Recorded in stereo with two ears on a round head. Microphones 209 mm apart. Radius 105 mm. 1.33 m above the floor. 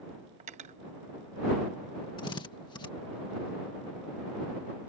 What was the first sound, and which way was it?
Cutlery clinking, 30° right (ahead or behind).